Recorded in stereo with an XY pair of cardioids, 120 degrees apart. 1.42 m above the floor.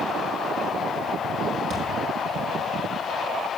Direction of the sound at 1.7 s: 50° right.